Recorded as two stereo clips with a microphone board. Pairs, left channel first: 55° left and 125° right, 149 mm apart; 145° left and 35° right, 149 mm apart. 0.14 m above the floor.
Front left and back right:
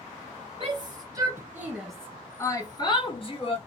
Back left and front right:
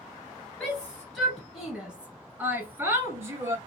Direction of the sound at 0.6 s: 135° right.